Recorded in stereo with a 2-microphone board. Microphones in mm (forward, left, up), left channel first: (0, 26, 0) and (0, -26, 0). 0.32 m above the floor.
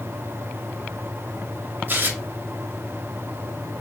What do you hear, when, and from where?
1.9 s tearing paper: 40° right (ahead or behind), 0.7 m